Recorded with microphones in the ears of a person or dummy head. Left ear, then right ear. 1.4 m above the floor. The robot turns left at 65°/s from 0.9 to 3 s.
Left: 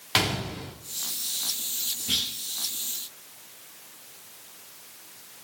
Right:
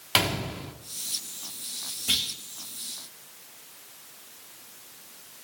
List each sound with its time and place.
0.1 s a gunshot: 10° right (ahead or behind), 2.0 m
2.1 s a clunk: 35° right (ahead or behind), 7.5 m; by 2.3 s 20° right (ahead or behind), 7.5 m